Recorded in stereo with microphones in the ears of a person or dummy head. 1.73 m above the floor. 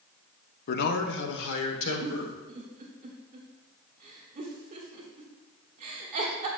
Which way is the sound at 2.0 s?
40° right (ahead or behind).